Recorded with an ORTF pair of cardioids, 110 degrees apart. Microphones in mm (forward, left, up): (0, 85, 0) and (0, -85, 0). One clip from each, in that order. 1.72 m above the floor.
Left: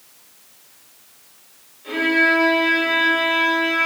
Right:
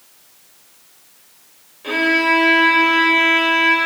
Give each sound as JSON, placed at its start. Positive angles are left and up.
{"t": 1.8, "sound": "a violin", "azimuth_deg": -65, "distance_m": 3.0}